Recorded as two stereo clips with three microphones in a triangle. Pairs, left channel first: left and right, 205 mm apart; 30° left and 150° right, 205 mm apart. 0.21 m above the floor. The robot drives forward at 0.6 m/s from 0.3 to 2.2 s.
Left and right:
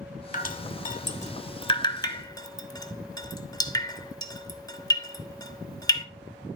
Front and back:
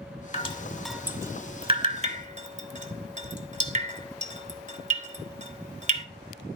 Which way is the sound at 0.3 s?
70° left.